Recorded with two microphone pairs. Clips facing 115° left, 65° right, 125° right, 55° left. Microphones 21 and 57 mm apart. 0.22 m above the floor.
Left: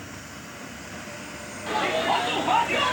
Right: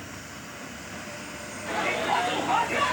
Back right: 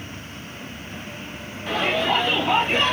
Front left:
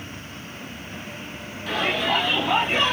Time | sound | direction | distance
1.7 | a shout | 175° left | 6 m